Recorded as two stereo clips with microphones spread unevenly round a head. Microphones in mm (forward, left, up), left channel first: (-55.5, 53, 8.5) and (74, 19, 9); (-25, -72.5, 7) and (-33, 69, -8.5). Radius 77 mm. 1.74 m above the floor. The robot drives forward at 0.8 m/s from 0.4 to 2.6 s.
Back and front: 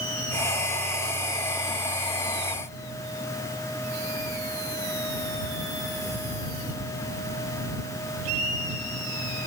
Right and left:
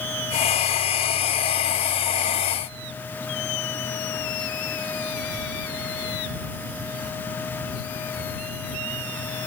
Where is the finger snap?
I don't hear a finger snap.